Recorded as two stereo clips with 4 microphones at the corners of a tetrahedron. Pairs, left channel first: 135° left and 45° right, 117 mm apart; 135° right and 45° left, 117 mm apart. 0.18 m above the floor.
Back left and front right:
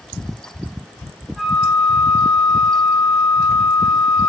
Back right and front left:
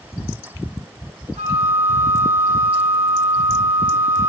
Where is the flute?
45° left, 4 m.